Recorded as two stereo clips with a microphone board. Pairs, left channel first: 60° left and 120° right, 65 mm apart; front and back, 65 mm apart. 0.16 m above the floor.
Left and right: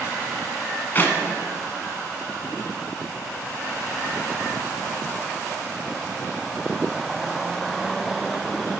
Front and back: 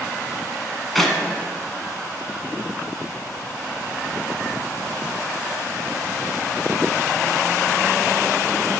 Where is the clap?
80° left, 1.4 m.